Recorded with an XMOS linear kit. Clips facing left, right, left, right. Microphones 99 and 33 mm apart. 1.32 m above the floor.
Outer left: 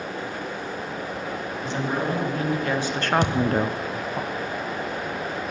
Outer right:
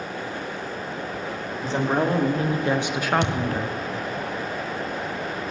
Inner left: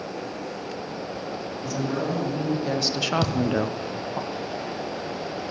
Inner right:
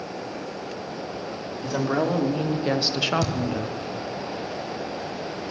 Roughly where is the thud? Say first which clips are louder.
Outer left 3 dB, inner left 3 dB; left.